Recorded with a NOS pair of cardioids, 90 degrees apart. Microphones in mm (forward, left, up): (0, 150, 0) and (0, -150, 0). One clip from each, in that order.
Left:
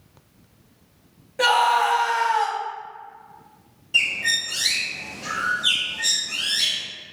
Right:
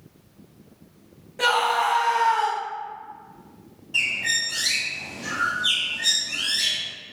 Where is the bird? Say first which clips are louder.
Left 2 dB; 20° left, 0.6 m.